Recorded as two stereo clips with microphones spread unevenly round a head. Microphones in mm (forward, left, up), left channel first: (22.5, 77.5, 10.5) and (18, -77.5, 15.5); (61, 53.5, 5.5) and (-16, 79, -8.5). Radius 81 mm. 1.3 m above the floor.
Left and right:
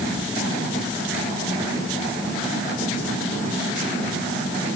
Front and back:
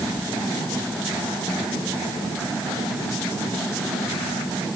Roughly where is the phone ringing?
I don't hear a phone ringing.